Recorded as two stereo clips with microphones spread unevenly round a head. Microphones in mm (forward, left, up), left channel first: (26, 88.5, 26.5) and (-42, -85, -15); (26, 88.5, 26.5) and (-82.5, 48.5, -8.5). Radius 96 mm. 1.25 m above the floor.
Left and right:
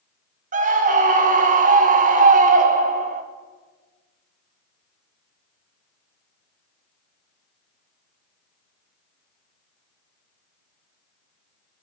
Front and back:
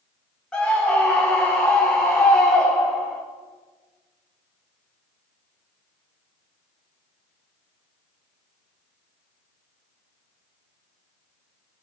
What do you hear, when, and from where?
0.5 s a scream: 70° right, 0.8 m